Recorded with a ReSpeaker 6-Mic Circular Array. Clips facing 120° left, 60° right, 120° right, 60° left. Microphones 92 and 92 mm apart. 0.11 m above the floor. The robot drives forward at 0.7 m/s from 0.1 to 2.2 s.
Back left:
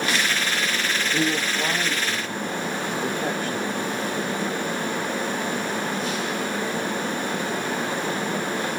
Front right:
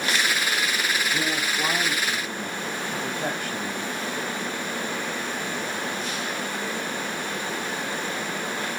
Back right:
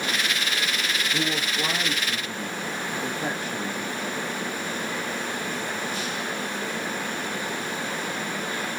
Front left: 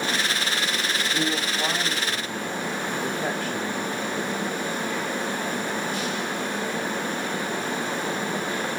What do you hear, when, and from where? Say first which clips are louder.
1.1 s a man speaking: back left 3 dB, front left 1 dB; 170° left, 1.3 m; by 3.8 s 175° left, 1.9 m